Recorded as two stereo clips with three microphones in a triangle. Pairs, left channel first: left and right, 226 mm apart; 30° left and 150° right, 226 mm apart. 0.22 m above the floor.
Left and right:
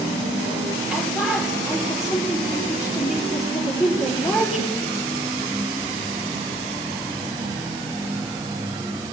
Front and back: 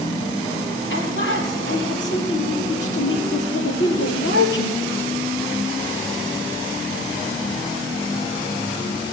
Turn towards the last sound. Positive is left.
turn(degrees=0)